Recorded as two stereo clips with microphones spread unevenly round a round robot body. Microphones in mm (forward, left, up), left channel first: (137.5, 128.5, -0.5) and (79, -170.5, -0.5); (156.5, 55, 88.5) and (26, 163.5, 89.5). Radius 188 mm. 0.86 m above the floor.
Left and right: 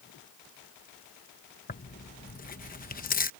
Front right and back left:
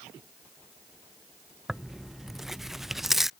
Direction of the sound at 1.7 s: 55° left.